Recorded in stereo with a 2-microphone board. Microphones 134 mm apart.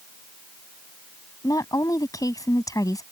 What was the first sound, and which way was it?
A woman speaking, 25° left (ahead or behind).